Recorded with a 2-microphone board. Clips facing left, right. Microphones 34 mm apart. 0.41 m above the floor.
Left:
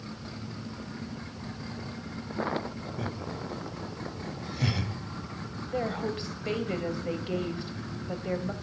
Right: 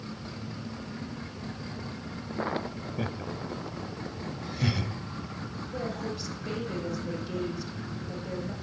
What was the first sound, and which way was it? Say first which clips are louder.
Laughter: right 2 dB; 25° right (ahead or behind).